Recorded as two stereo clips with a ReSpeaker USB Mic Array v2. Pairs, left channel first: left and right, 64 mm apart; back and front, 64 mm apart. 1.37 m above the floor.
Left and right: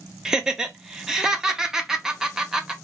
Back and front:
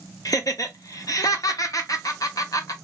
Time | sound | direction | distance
0.2 | laughter | 170° right | 0.7 m